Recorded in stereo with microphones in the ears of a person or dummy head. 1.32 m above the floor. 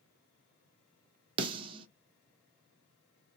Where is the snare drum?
30° right (ahead or behind), 0.7 m.